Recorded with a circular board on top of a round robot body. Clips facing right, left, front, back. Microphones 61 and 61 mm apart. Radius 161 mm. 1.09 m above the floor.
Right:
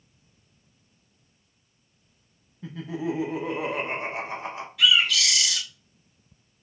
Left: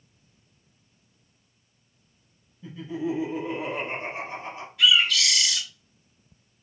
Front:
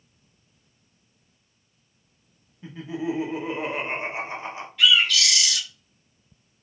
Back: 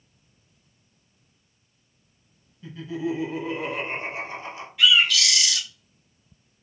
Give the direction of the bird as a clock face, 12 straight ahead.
3 o'clock.